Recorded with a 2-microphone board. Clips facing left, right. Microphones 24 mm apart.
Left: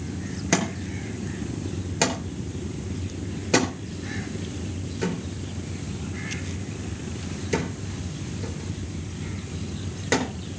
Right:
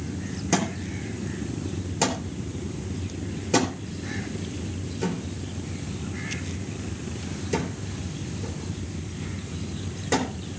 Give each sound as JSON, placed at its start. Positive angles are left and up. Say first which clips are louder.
{"t": 0.5, "sound": "a thud", "louder": "left 1 dB", "side_deg": 40, "distance_m": 4.0}